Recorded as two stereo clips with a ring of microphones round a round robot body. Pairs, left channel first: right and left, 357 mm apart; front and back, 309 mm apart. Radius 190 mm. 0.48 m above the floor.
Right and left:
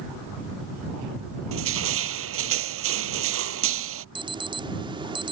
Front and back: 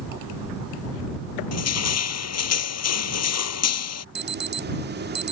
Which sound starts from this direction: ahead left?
Crushing, at 1.5 s.